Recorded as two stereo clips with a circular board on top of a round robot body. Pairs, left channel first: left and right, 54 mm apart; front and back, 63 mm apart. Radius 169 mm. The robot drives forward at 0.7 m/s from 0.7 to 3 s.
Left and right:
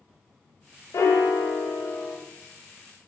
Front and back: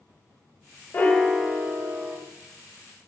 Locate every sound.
0.9 s a piano: 60° left, 0.6 m; by 2.2 s 140° left, 0.7 m